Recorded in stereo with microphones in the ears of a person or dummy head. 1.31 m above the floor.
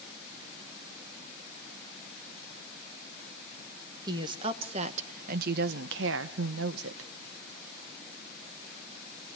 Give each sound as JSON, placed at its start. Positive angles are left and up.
{"t": 4.1, "sound": "a woman speaking", "side_deg": -20, "distance_m": 1.4}